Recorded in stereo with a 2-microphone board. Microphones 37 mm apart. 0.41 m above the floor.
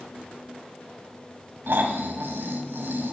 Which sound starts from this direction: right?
Snoring, at 1.7 s.